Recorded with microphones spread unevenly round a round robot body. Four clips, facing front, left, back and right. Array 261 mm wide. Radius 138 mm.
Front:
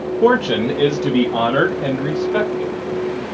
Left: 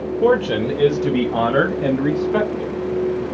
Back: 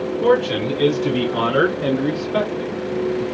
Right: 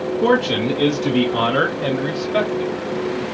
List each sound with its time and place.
0.2 s a man speaking: 30° left, 0.9 m; by 2.7 s 45° left, 2.5 m